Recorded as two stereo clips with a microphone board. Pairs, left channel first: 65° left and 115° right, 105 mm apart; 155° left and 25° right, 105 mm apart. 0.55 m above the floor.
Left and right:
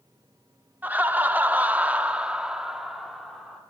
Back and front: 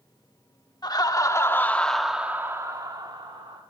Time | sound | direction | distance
0.8 | laughter | straight behind | 1.2 m